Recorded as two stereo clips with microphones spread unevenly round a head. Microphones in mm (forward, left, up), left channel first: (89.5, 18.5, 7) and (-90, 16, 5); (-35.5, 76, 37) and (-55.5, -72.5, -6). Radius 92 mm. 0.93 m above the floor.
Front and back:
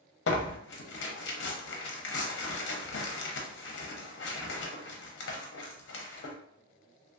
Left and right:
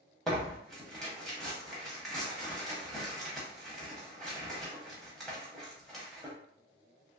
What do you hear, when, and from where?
0.3 s tearing paper: 10° right, 0.6 m